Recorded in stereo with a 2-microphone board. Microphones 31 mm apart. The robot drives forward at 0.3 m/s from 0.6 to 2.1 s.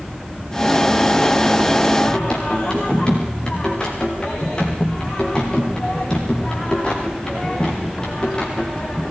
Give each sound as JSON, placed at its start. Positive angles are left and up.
{"t": 2.0, "sound": "singing", "side_deg": 25, "distance_m": 8.5}